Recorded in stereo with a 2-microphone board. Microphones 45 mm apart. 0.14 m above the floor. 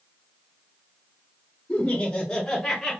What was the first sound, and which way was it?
Laughter, 30° left (ahead or behind).